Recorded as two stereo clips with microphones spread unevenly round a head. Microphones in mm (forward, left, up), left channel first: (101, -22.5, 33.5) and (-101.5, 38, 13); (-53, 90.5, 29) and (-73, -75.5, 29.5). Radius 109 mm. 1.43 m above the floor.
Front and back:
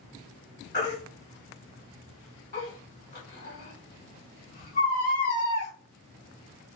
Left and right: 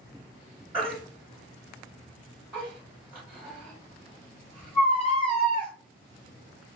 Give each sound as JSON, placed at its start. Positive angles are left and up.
{"t": 0.7, "sound": "a baby crying", "azimuth_deg": -15, "distance_m": 1.3}